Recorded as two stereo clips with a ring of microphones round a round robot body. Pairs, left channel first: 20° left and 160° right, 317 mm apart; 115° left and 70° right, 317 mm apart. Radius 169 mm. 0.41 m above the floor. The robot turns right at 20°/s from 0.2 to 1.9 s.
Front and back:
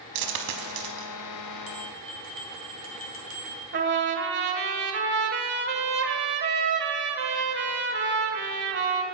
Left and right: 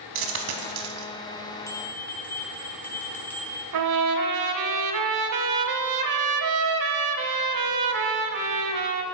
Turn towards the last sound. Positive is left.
turn(degrees=-100)